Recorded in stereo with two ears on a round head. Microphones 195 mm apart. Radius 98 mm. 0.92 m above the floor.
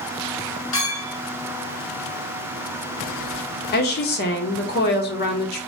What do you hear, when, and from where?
0.7 s a clink: 20° left (ahead or behind), 1.7 m
3.7 s a woman speaking: 45° left (ahead or behind), 0.6 m